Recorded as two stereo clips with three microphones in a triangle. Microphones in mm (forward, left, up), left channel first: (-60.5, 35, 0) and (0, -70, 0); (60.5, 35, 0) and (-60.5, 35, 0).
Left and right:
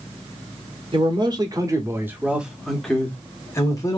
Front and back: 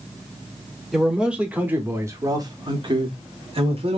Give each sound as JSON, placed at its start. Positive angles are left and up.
{"t": 0.9, "sound": "a man speaking", "azimuth_deg": -95, "distance_m": 1.3}